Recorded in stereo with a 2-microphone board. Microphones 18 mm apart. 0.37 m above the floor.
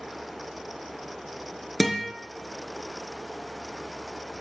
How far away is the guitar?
About 3.5 m.